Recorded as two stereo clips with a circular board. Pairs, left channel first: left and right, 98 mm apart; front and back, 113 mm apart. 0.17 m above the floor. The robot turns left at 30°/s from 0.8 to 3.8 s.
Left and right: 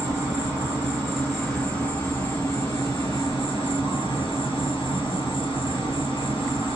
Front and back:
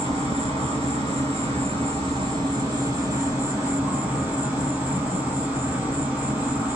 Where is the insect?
165° right, 1.9 m; by 6.8 s 105° left, 1.9 m.